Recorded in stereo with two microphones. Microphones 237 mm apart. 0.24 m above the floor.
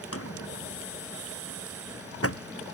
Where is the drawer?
75° left (ahead or behind).